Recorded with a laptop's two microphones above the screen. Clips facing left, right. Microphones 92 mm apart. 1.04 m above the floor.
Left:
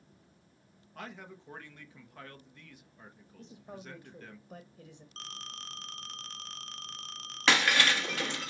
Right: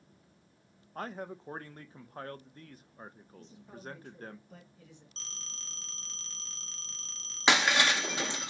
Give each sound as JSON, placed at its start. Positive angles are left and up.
{"t": 0.9, "sound": "a man speaking", "side_deg": -40, "distance_m": 0.6}
{"t": 3.4, "sound": "a man speaking", "side_deg": 40, "distance_m": 0.8}
{"t": 5.2, "sound": "a phone ringing", "side_deg": 55, "distance_m": 0.6}
{"t": 7.5, "sound": "breaking glass", "side_deg": -15, "distance_m": 0.8}